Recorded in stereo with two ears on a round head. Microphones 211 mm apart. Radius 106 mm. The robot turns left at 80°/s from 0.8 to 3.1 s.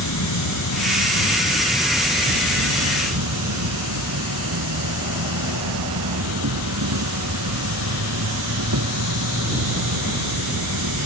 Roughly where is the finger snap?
I don't hear a finger snap.